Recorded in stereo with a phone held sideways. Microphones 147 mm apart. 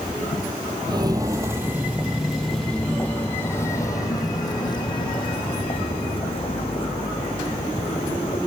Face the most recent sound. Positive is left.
turn(degrees=45)  # may be behind; listen again after turning